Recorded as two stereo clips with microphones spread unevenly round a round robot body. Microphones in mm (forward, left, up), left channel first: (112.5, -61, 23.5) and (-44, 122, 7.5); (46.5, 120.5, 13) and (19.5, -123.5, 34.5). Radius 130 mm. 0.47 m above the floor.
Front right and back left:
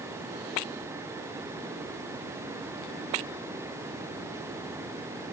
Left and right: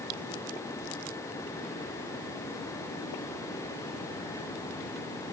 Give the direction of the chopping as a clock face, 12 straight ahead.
I don't hear chopping.